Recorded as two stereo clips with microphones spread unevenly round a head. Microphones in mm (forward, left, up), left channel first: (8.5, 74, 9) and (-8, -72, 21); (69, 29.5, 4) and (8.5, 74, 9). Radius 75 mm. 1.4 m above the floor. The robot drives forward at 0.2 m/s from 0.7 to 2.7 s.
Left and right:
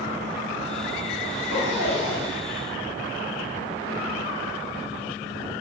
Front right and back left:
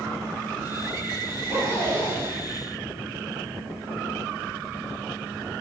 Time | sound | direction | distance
1.3 | a zipper | 95° left | 2.0 m